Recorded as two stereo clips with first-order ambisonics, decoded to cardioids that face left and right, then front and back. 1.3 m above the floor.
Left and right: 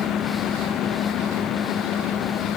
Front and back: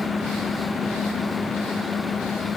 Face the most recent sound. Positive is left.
No sound to turn to.